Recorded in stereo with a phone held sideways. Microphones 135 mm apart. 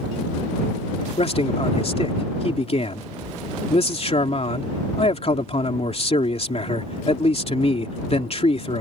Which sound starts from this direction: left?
A man speaking, at 1.2 s.